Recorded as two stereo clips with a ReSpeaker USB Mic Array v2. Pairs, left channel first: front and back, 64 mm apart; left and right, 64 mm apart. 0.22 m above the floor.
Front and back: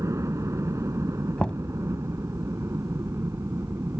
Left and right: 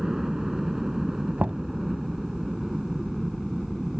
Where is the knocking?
55° right.